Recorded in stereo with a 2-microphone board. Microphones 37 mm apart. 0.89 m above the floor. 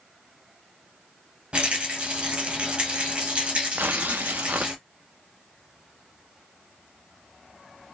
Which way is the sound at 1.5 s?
30° right (ahead or behind).